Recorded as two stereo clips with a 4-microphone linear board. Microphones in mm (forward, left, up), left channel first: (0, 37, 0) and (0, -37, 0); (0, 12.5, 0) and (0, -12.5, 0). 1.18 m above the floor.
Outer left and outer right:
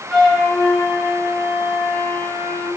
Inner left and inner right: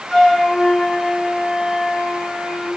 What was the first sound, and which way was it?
A flute, centre (ahead or behind).